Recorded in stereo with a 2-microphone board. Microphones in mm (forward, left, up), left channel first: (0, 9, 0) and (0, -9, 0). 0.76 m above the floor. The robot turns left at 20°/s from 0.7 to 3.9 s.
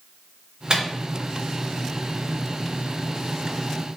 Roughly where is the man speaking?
I don't hear a man speaking.